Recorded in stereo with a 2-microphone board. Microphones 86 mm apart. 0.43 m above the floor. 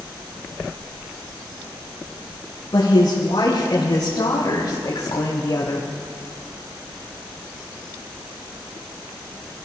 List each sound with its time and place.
2.7 s a woman speaking: 75° left (ahead or behind), 4 m; by 5.9 s 55° left (ahead or behind), 1.5 m